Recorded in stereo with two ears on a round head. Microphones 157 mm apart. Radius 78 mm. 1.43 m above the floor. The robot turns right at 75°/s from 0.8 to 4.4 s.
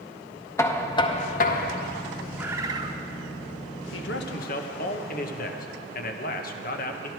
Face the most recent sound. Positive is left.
turn(degrees=125)